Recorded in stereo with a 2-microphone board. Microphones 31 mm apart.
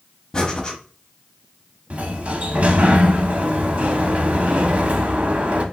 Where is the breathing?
25° left (ahead or behind), 0.6 m.